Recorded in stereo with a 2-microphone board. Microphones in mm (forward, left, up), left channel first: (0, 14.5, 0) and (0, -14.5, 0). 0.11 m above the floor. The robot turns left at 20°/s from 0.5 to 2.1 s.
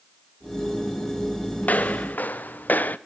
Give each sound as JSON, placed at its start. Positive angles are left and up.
{"t": 1.6, "sound": "footsteps", "side_deg": 65, "distance_m": 1.6}